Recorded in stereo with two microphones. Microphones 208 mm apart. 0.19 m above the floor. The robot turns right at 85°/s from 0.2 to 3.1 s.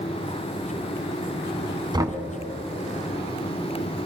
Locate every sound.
1.9 s knocking: 20° right (ahead or behind), 1.1 m; by 2.2 s 5° right (ahead or behind), 1.1 m